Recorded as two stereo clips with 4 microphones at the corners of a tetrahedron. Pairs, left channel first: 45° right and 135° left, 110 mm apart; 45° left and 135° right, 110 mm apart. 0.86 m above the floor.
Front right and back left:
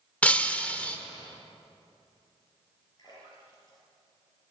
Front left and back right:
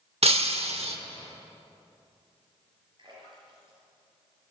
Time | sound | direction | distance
0.2 | breaking glass | 120° right | 0.9 m
3.0 | a splash | 95° right | 5.5 m